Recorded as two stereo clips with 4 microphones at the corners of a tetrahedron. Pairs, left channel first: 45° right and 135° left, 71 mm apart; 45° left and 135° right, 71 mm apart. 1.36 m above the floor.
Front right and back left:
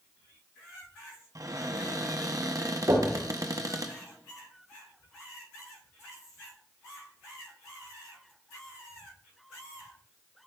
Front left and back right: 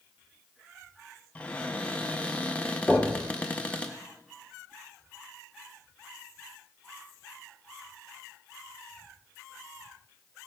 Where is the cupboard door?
115° left, 0.7 m.